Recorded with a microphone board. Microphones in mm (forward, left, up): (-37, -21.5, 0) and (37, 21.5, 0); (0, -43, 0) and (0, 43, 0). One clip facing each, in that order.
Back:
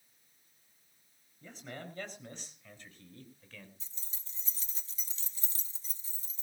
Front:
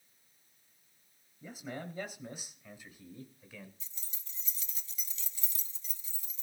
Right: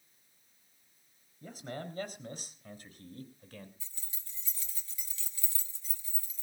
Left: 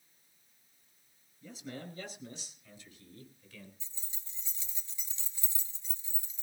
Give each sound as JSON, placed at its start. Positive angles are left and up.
{"t": 1.4, "sound": "a man speaking", "azimuth_deg": -50, "distance_m": 5.5}
{"t": 3.8, "sound": "keys jangling", "azimuth_deg": 155, "distance_m": 2.0}